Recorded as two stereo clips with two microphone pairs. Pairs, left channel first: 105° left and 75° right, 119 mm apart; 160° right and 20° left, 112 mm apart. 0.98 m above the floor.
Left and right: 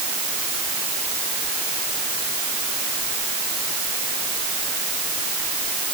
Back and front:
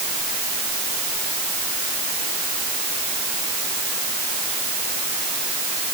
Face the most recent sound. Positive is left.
No sound to turn to.